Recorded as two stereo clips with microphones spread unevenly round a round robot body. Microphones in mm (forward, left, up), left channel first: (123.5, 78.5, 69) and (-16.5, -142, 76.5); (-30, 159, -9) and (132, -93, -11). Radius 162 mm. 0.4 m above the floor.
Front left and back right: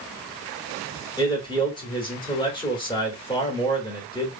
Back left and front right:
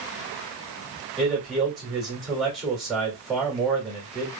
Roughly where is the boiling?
I don't hear boiling.